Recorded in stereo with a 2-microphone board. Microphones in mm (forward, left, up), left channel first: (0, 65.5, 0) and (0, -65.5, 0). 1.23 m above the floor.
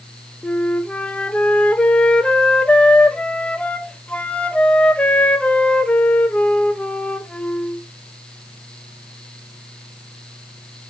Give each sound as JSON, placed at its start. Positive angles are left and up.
{"t": 0.4, "sound": "a flute", "side_deg": 10, "distance_m": 0.6}